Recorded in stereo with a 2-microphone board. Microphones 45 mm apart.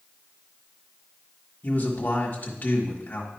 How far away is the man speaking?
About 1.4 m.